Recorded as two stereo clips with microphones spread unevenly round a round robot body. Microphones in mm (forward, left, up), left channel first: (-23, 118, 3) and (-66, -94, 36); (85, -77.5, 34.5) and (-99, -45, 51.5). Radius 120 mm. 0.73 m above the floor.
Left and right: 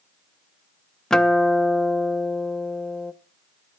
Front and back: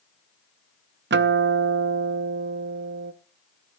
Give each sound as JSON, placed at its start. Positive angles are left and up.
{"t": 1.1, "sound": "a guitar", "azimuth_deg": 160, "distance_m": 0.6}